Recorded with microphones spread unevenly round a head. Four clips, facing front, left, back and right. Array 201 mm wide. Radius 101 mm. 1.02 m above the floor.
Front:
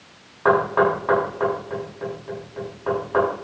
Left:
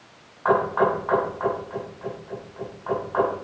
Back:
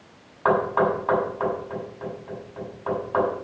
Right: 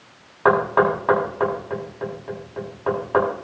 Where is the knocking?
85° right, 7.5 m.